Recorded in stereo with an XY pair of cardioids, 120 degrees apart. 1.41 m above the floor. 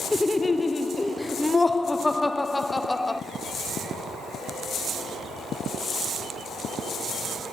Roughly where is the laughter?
Ahead.